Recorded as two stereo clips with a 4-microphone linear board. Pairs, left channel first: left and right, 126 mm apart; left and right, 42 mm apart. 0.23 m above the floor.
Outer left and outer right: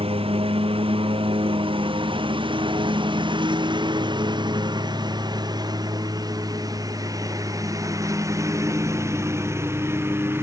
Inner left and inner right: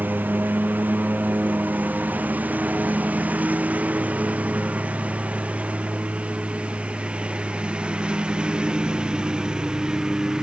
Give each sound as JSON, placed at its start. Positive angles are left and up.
{"t": 0.0, "sound": "a lawn mower", "side_deg": -50}